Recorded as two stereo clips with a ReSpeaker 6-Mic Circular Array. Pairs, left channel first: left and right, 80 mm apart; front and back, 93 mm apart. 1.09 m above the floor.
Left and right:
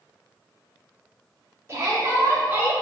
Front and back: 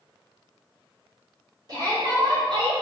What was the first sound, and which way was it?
A shout, 145° right.